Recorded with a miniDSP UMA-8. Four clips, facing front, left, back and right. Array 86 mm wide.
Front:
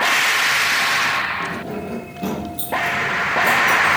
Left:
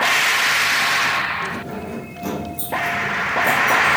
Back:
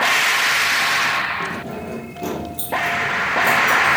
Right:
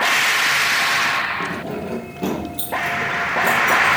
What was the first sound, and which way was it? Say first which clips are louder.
Keys jangling: right 2 dB, front 1 dB; 100° right.